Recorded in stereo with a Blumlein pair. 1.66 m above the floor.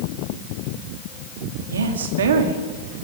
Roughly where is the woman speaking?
Right.